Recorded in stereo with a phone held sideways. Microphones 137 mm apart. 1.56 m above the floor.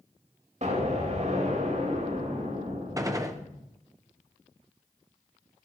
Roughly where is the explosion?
Right.